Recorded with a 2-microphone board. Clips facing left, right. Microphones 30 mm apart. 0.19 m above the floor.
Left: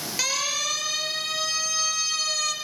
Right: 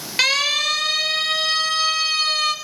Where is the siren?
60° right (ahead or behind), 5 m; by 2.5 s 45° right (ahead or behind), 3 m.